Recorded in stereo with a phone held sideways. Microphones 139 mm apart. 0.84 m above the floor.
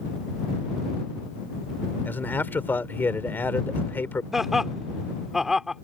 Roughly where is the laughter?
Centre.